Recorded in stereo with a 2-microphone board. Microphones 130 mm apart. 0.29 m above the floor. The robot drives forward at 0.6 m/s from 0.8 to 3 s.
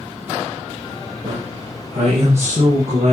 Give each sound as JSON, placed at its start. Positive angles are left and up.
{"t": 1.2, "sound": "a man speaking", "side_deg": -65, "distance_m": 7.0}